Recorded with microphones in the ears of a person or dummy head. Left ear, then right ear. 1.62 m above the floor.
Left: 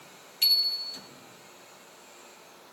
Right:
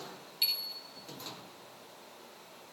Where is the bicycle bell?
25° left (ahead or behind), 3 m.